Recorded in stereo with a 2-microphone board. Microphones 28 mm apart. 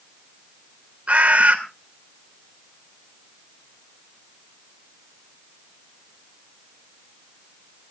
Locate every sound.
1.1 s a bird: 55° right (ahead or behind), 3 m